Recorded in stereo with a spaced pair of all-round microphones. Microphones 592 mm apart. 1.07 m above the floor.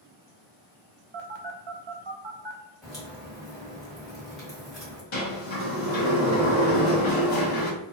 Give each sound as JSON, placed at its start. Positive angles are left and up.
{"t": 1.1, "sound": "a phone buzzing", "side_deg": -50, "distance_m": 0.5}
{"t": 2.8, "sound": "a crack", "side_deg": 0, "distance_m": 1.3}
{"t": 5.1, "sound": "a sliding door", "side_deg": 55, "distance_m": 0.8}